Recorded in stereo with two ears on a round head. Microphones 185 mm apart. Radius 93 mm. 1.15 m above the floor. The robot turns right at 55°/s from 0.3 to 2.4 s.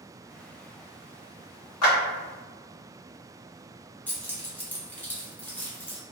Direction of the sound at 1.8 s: 80° left.